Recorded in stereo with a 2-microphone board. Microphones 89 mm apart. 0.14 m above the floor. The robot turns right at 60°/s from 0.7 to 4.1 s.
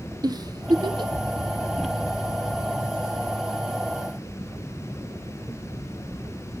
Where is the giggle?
45° right (ahead or behind), 0.6 m; by 1.1 s 60° right (ahead or behind), 0.6 m.